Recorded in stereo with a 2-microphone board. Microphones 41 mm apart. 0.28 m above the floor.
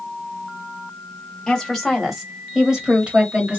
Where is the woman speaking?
15° left (ahead or behind), 1.3 m; by 3.6 s 35° right (ahead or behind), 1.3 m.